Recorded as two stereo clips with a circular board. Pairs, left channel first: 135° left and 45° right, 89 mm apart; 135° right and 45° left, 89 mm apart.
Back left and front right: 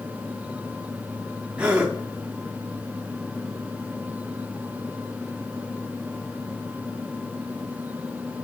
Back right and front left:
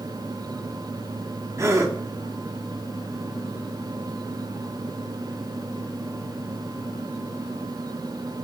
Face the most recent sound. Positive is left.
turn(degrees=20)